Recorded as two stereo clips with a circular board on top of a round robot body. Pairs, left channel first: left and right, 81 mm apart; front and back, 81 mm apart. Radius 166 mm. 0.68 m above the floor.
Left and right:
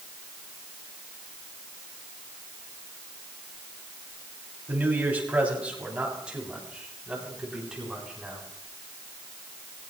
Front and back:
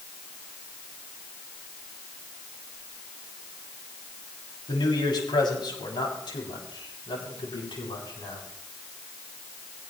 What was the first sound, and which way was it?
A man speaking, 25° right.